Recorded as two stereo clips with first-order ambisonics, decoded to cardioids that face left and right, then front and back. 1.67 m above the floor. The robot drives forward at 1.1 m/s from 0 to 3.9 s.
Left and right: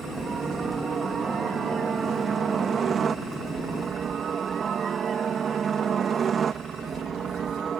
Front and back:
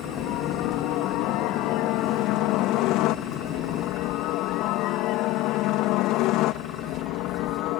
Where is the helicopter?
25° right.